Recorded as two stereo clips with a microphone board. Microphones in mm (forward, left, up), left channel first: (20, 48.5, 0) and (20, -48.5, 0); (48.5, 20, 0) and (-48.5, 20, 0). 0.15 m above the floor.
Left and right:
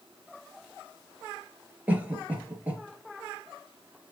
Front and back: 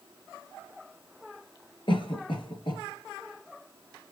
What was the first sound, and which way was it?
A cough, 20° right.